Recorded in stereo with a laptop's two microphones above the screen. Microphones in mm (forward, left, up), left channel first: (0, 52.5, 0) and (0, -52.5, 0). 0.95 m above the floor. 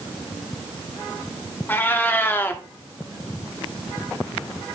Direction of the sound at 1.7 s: 20° left (ahead or behind).